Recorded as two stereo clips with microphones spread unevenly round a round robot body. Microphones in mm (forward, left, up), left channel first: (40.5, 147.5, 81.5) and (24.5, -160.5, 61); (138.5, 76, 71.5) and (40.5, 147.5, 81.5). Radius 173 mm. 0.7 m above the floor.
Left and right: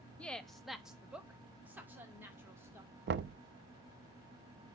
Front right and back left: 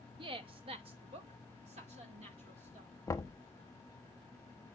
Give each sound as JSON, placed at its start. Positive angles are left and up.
{"t": 0.2, "sound": "a woman speaking", "azimuth_deg": 175, "distance_m": 0.7}
{"t": 3.1, "sound": "knocking", "azimuth_deg": -80, "distance_m": 0.5}